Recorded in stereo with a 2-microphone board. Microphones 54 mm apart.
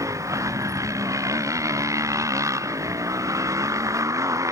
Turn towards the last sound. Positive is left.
turn(degrees=-80)